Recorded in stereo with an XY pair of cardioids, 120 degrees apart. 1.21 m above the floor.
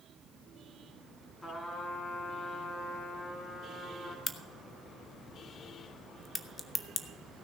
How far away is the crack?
About 1.0 m.